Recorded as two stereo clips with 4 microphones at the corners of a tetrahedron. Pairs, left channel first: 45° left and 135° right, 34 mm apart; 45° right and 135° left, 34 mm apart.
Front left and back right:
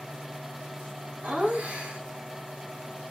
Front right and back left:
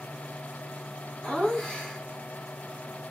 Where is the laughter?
115° right, 2.0 m.